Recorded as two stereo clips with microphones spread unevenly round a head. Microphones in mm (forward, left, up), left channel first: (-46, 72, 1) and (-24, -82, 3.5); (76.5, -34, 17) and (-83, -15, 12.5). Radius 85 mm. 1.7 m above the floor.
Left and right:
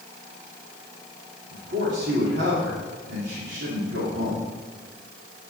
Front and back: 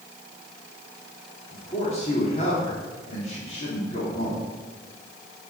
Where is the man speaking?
55° right, 3.5 m.